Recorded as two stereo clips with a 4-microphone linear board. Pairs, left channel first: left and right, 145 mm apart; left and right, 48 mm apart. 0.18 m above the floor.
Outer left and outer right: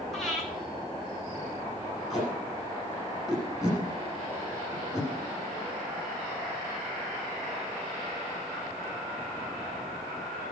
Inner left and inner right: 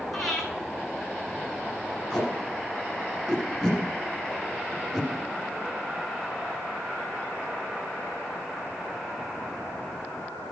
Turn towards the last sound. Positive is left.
turn(degrees=0)  # may be behind; listen again after turning